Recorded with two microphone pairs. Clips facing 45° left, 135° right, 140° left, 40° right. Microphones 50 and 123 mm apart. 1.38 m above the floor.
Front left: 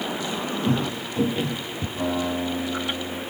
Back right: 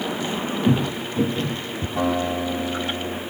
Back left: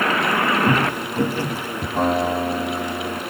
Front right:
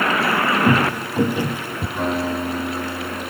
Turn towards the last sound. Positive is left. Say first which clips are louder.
# back right 3 dB, back left 3 dB
turn(degrees=-165)